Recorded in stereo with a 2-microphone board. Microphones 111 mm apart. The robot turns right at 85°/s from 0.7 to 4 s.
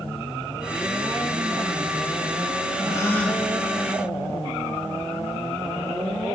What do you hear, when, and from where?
2.8 s a gasp: 140° left, 0.8 m; by 3.5 s 170° right, 0.8 m